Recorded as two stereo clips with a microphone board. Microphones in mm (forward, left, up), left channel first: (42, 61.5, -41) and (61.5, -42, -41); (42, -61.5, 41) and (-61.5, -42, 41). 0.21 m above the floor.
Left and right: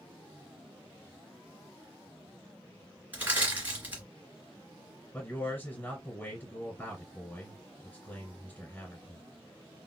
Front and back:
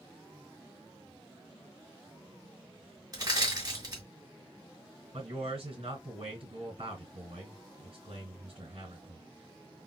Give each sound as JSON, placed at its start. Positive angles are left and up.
{"t": 3.1, "sound": "crushing", "azimuth_deg": -145, "distance_m": 2.5}
{"t": 5.1, "sound": "a man speaking", "azimuth_deg": 165, "distance_m": 2.5}